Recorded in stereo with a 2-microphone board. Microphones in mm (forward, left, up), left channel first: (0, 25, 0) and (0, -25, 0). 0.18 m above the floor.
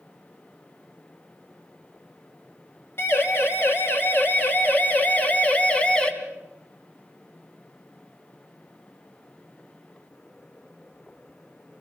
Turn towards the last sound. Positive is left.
turn(degrees=20)  # may be behind; listen again after turning